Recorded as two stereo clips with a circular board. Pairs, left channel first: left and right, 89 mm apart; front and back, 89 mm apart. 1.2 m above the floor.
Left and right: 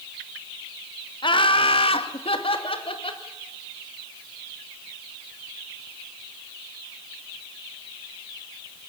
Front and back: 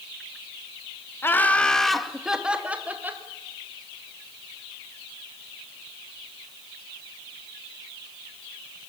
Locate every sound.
1.2 s laughter: 65° left, 1.7 m; by 3.2 s 110° left, 3.5 m